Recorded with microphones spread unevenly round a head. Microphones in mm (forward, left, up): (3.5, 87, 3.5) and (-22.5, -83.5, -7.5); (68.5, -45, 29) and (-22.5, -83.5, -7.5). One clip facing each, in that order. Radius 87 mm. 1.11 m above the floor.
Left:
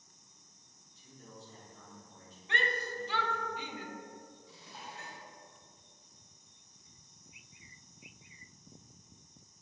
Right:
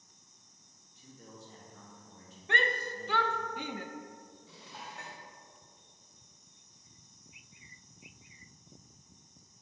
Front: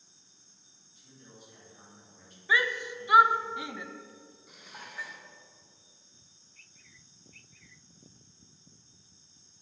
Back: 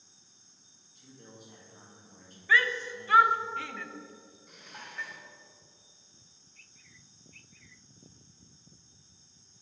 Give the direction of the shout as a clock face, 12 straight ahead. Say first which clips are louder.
Right 3 dB, back 1 dB; 2 o'clock.